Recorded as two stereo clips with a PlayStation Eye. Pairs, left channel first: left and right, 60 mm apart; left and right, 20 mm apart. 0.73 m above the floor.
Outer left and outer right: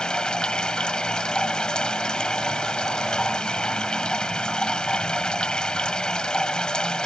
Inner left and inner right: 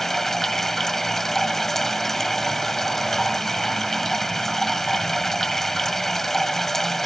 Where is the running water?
15° left (ahead or behind).